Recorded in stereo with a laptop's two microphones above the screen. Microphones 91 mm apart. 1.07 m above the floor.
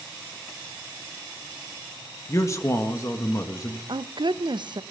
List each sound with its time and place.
2.3 s a man speaking: 35° left (ahead or behind), 1.6 m
3.9 s a woman speaking: 55° right (ahead or behind), 0.6 m